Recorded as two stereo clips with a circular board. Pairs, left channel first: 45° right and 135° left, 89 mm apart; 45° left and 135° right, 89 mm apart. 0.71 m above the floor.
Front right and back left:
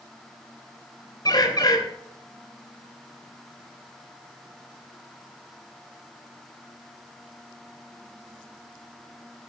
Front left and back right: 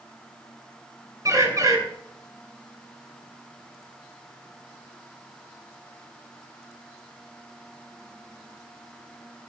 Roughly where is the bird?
Right.